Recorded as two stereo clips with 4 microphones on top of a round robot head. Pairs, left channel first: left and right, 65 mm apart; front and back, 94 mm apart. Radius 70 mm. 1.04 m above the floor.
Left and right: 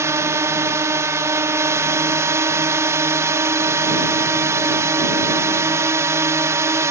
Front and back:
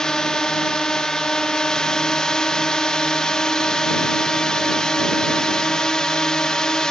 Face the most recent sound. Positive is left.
turn(degrees=-80)